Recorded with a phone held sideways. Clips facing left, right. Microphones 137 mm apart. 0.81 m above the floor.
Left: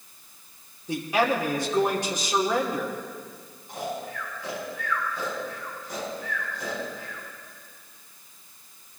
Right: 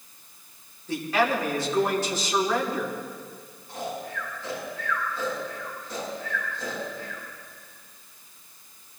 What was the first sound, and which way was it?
A man speaking, 15° left (ahead or behind).